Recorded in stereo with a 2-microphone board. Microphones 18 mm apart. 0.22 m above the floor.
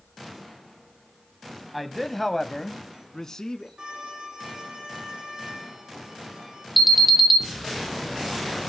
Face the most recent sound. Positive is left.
turn(degrees=0)  # may be behind; listen again after turning